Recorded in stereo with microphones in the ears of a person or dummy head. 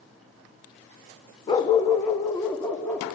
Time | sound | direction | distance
1.5 | a dog barking | 20° left (ahead or behind) | 0.8 m